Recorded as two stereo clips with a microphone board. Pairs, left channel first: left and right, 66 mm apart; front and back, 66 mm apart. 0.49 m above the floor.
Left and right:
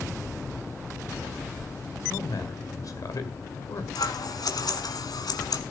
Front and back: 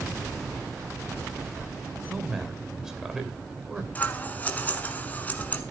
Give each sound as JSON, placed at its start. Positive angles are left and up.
{"t": 2.1, "sound": "a man speaking", "azimuth_deg": 100, "distance_m": 2.0}
{"t": 4.0, "sound": "scissors", "azimuth_deg": 65, "distance_m": 1.4}